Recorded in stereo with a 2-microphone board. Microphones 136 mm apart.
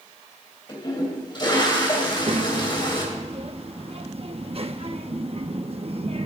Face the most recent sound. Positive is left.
turn(degrees=-50)  # may be behind; listen again after turning